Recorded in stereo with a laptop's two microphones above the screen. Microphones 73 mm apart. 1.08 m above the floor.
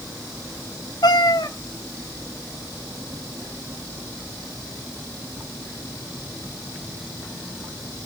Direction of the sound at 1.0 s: 70° left (ahead or behind).